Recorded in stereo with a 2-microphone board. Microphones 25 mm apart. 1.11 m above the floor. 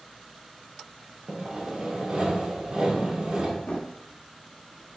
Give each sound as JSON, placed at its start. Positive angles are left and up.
{"t": 1.3, "sound": "sawing", "side_deg": -40, "distance_m": 0.8}
{"t": 3.7, "sound": "a drawer", "side_deg": 50, "distance_m": 0.8}